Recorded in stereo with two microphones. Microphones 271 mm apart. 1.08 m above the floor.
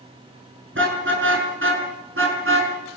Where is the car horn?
45° right (ahead or behind), 6.5 m; by 2.7 s 50° right (ahead or behind), 5.5 m.